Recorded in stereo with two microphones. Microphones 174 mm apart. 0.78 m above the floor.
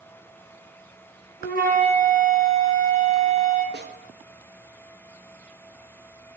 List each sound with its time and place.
1.4 s a flute: 60° right (ahead or behind), 3 m
3.7 s a snare drum: 80° right, 1.0 m